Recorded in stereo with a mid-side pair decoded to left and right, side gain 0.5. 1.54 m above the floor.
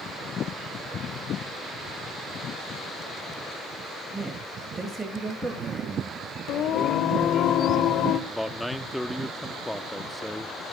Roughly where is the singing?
Ahead left.